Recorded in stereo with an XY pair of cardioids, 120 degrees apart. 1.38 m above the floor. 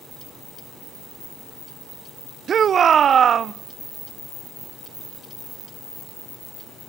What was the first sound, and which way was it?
A shout, 45° right.